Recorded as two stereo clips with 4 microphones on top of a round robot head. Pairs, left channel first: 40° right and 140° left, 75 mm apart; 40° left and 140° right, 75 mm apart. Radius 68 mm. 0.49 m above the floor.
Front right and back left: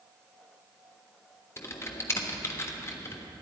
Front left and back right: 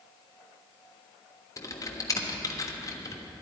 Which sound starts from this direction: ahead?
Typing on a keyboard, at 1.6 s.